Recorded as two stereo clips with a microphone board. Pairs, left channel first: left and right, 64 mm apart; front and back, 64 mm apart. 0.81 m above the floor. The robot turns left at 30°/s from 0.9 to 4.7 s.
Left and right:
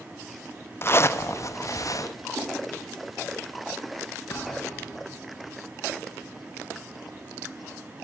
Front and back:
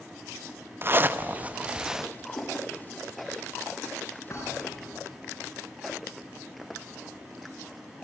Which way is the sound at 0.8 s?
135° left.